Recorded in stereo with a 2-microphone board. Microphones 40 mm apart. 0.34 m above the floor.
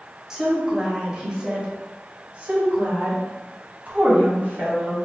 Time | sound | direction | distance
0.3 | a woman speaking | 15° right (ahead or behind) | 1.8 m